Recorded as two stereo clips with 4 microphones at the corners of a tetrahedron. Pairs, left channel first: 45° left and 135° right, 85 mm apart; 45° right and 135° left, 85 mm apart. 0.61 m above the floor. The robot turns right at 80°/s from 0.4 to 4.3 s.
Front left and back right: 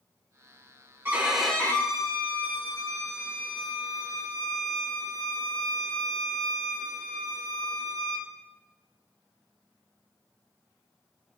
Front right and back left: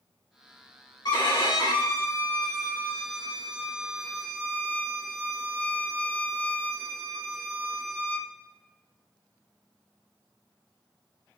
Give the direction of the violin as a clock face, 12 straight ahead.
2 o'clock.